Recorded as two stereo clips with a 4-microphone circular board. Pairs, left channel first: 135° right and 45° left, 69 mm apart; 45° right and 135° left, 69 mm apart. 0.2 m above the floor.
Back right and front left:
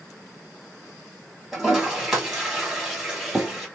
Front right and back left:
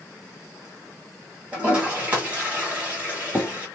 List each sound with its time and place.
1.5 s a toilet flushing: 115° left, 1.3 m